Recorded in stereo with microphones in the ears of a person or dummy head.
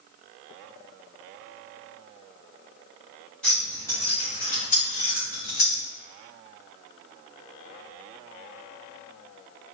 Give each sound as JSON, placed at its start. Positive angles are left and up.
{"t": 3.4, "sound": "keys jangling", "side_deg": 10, "distance_m": 1.4}